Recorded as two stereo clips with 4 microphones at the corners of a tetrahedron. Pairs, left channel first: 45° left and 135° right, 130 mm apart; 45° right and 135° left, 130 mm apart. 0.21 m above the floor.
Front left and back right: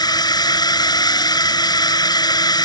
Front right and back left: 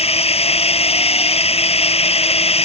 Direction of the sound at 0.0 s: 10° right.